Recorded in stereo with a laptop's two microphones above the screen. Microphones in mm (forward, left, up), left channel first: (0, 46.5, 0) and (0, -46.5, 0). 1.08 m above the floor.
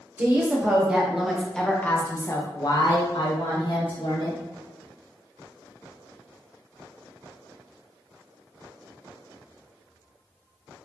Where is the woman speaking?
20° right (ahead or behind), 1.9 m; by 4.4 s 65° left (ahead or behind), 1.8 m.